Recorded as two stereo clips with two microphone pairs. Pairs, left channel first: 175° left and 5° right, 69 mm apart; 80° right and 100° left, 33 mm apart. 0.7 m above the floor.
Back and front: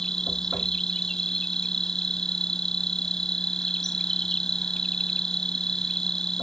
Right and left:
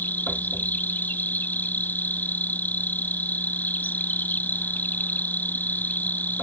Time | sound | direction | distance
0.0 | an insect | 100° right | ?